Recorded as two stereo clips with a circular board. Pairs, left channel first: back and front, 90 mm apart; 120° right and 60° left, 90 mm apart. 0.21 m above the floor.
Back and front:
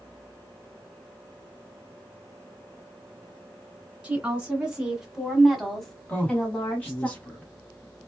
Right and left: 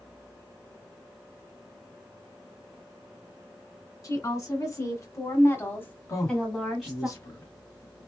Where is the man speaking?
115° right, 1.2 m.